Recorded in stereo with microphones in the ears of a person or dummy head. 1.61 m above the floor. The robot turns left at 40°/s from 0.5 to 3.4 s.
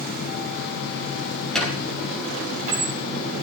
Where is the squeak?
5° left (ahead or behind), 4.5 m; by 2.9 s 50° right (ahead or behind), 4.5 m.